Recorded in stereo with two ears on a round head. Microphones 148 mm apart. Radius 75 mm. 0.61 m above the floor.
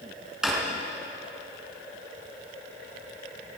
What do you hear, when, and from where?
0.4 s a drawer: 5° right (ahead or behind), 3 m